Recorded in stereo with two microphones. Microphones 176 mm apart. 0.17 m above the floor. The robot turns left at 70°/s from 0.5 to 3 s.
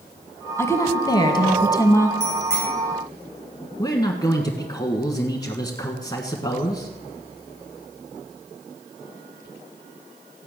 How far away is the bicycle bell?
About 8.5 m.